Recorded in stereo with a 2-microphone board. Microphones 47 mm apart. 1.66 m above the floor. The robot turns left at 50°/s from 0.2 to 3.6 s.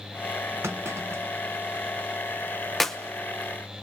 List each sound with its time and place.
0.6 s a clunk: 65° right (ahead or behind), 1.2 m; by 1.9 s 45° right (ahead or behind), 1.2 m
2.8 s a clap: 5° left (ahead or behind), 0.9 m; by 3.0 s 10° left (ahead or behind), 0.9 m